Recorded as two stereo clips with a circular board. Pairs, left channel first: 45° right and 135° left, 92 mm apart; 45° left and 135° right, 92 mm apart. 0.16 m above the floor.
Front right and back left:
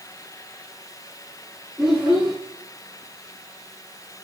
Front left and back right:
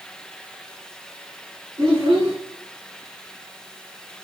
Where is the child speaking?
140° right, 2 m.